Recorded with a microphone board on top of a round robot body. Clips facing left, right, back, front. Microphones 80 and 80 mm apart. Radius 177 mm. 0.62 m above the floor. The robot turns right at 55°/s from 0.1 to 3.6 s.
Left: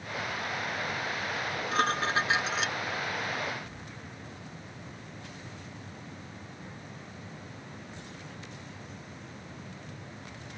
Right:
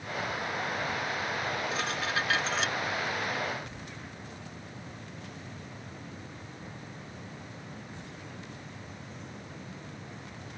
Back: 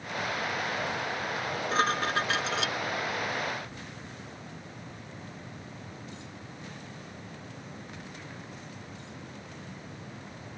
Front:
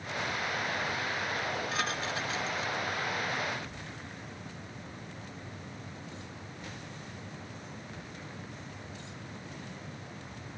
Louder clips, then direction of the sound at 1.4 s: Left 3 dB, back 5 dB; 105° left.